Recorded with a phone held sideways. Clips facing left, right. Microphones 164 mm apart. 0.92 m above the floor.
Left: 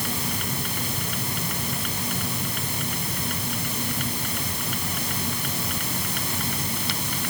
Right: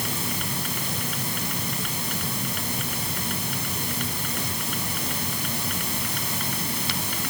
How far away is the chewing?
I don't hear chewing.